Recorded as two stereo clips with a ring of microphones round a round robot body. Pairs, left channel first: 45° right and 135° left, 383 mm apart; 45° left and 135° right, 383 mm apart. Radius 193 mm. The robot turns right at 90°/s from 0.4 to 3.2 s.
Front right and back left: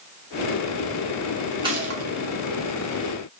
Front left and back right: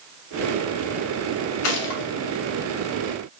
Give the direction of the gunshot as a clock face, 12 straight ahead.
10 o'clock.